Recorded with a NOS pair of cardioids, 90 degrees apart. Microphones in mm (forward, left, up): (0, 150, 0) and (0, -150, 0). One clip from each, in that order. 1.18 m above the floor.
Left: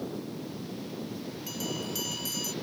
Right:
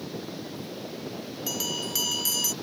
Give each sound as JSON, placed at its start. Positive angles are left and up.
{"t": 1.5, "sound": "a bell", "azimuth_deg": -50}